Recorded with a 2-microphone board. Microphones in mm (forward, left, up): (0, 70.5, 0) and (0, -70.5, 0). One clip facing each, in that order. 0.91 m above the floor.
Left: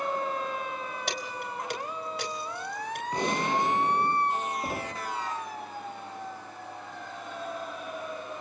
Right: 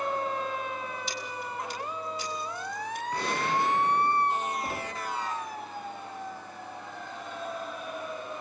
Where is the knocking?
15° left (ahead or behind), 1.6 m.